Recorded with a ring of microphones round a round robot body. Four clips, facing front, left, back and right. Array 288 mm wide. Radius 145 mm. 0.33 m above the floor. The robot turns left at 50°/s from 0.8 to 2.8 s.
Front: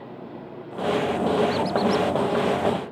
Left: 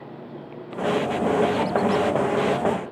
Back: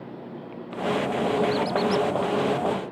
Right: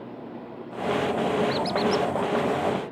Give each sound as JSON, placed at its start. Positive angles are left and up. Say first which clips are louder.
{"t": 1.5, "sound": "a squeak", "louder": "left 3 dB, front 1 dB", "azimuth_deg": -80}